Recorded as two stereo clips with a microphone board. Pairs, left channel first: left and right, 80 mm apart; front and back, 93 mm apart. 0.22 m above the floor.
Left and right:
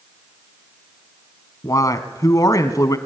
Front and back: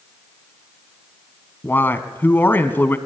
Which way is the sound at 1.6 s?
60° left.